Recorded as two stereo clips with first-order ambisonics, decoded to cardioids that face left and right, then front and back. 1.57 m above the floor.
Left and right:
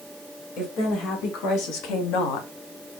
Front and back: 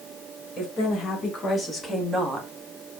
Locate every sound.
0.6 s a woman speaking: 55° left, 2 m; by 2.5 s 115° left, 0.7 m